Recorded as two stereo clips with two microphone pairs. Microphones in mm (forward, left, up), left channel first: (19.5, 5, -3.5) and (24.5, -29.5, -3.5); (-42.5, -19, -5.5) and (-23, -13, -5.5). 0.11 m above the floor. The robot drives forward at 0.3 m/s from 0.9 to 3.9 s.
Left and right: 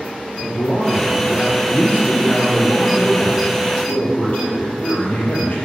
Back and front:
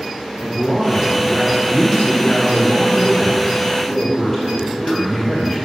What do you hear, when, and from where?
0.4 s a man speaking: 120° left, 2.5 m; by 5.6 s 140° left, 2.5 m